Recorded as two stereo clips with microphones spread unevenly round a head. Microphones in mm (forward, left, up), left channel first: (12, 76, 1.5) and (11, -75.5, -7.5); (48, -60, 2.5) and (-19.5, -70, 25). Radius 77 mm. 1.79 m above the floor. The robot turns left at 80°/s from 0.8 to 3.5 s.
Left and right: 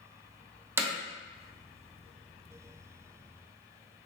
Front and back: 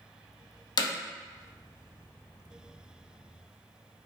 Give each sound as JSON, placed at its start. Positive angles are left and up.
{"t": 0.8, "sound": "hammering", "azimuth_deg": -15, "distance_m": 0.6}